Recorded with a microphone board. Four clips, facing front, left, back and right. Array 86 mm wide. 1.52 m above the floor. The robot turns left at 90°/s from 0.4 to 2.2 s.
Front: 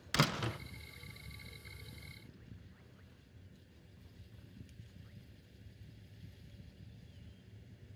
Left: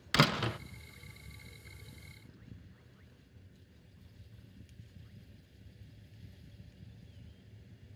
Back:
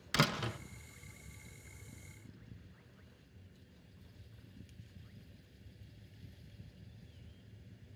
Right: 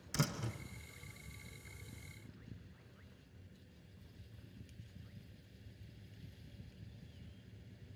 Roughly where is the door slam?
Left.